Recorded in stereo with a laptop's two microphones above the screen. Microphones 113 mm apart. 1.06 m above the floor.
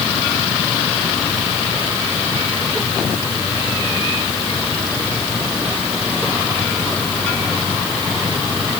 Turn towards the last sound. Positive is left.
No sound to turn to.